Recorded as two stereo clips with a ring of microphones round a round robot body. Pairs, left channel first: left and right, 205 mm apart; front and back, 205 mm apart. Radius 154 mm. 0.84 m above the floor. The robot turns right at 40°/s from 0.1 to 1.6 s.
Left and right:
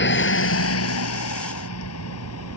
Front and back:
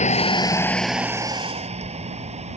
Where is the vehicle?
55° left; by 2.6 s 120° left.